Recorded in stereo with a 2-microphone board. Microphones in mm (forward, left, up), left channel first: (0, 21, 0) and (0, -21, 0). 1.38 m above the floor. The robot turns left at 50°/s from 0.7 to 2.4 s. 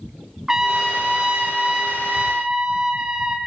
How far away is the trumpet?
About 0.9 m.